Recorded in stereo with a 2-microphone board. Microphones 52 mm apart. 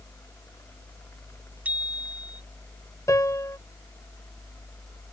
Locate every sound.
1.6 s a bicycle bell: 30° right (ahead or behind)
3.1 s a piano: 85° left